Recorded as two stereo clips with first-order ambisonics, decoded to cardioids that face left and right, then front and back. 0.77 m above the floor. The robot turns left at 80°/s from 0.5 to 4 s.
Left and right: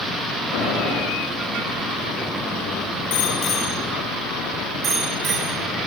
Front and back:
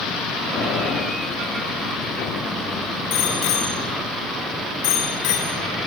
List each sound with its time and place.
0.5 s boiling: 80° left, 10 m; by 1.0 s 40° left, 10 m
3.1 s a bicycle bell: 55° left, 8 m; by 5.6 s 20° right, 8 m